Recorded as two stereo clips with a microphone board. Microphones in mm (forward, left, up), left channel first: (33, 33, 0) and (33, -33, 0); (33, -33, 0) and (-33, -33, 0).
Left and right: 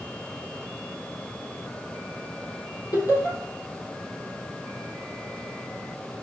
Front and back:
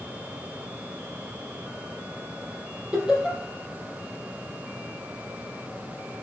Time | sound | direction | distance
2.9 | laughter | 110° left | 3 m